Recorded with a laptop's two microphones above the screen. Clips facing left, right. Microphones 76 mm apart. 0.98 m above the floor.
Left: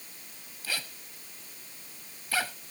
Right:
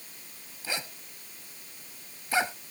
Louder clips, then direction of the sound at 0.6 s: Right 2 dB; 20° right (ahead or behind).